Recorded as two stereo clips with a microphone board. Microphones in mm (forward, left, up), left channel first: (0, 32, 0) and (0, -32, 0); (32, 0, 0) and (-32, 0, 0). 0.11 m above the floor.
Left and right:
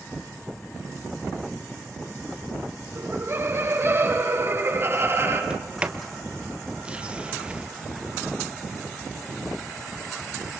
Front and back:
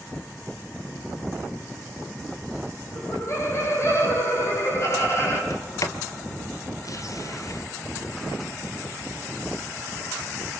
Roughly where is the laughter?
Ahead right.